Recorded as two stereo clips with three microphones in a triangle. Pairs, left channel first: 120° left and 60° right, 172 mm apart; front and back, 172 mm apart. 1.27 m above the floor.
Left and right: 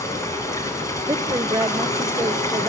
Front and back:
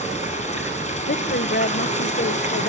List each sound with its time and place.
0.0 s running water: 45° left, 5 m
1.1 s a woman speaking: 10° left, 0.7 m